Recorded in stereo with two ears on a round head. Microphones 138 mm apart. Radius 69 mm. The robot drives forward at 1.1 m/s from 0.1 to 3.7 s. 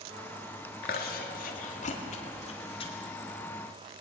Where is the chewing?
65° left (ahead or behind), 2 m; by 2.9 s 40° left (ahead or behind), 3 m.